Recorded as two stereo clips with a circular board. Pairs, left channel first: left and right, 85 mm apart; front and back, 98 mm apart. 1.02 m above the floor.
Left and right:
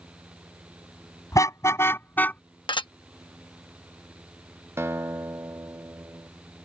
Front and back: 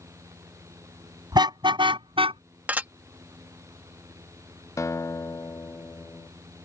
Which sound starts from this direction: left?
Dishes clattering, at 2.7 s.